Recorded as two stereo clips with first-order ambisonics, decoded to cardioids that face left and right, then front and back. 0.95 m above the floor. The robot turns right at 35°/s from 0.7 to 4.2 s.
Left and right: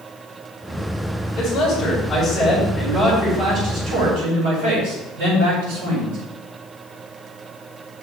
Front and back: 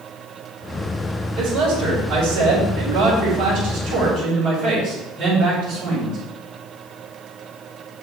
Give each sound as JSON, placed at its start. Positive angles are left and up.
{"t": 1.4, "sound": "a man speaking", "azimuth_deg": 135, "distance_m": 6.0}